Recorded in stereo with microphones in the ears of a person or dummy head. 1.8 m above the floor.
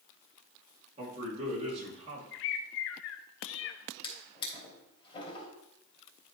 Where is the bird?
70° left (ahead or behind), 0.6 m.